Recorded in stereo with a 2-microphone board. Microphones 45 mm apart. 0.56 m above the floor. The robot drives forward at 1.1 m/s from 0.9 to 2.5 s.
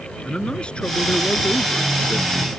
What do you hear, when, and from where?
0.2 s a man speaking: 25° left (ahead or behind)